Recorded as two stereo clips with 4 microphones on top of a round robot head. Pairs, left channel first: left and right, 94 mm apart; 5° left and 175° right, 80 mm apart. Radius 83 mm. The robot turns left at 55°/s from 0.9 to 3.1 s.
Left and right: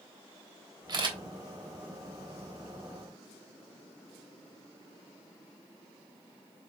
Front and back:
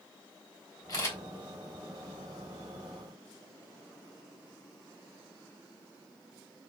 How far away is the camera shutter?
About 3 m.